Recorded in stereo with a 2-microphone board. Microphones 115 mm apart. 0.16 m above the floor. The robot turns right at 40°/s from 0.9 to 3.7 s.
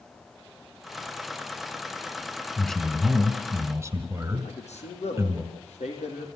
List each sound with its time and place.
2.6 s a man speaking: 170° left, 1.9 m; by 5.4 s 145° right, 1.9 m
4.4 s a man speaking: 75° left (ahead or behind), 6 m